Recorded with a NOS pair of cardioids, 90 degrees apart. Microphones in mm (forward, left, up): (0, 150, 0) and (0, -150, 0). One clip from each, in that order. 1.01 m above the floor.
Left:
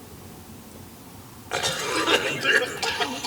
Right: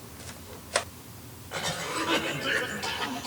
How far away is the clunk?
No clunk in this recording.